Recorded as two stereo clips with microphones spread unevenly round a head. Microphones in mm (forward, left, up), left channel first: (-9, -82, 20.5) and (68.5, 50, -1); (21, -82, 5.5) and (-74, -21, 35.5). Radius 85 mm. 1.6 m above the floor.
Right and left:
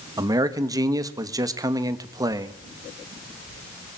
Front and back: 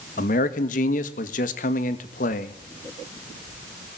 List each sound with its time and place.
0.2 s a man speaking: 10° right, 2 m